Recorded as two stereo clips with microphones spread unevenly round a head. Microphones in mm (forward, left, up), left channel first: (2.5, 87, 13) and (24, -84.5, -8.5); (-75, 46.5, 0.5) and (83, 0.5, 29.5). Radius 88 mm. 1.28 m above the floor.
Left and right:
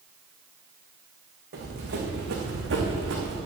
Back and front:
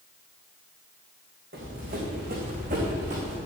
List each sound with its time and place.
1.5 s running footsteps: 50° right, 4.5 m; by 3.4 s 65° right, 4.5 m